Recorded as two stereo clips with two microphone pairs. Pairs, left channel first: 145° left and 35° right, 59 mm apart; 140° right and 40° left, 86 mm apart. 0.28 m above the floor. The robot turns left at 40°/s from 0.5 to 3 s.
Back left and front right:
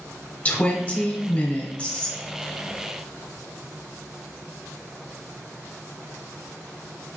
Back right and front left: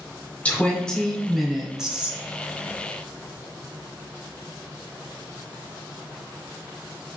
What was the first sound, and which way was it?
A woman speaking, 165° left.